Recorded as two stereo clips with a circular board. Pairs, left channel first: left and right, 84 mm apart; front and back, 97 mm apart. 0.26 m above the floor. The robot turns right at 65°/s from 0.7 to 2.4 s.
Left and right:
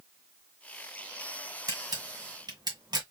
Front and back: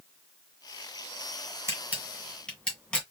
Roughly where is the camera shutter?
Behind right.